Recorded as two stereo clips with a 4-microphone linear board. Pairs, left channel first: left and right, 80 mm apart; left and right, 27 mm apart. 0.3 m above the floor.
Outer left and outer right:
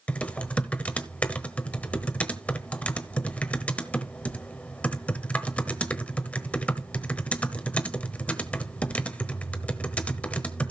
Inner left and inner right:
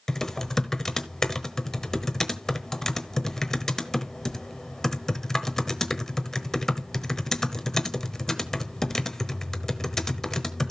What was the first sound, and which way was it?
Typing on a keyboard, 20° left (ahead or behind).